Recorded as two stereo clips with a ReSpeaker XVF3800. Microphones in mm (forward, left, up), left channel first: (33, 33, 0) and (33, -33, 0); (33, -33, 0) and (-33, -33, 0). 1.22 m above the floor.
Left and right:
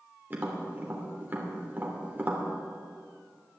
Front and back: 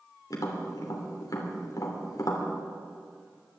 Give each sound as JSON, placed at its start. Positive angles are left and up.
{"t": 0.3, "sound": "tapping", "azimuth_deg": -30, "distance_m": 3.0}